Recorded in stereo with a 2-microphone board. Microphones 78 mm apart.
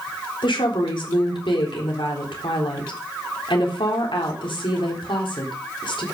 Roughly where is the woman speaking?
Left.